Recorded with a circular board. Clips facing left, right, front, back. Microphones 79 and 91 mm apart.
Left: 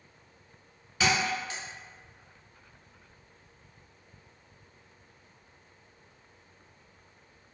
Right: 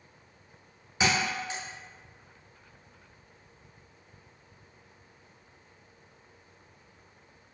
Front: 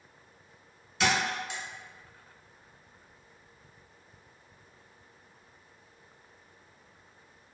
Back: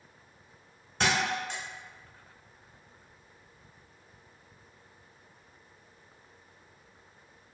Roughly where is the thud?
Behind right.